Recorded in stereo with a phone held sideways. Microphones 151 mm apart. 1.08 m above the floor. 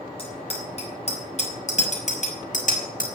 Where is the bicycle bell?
40° left (ahead or behind), 6 m; by 3.1 s 65° left (ahead or behind), 5 m.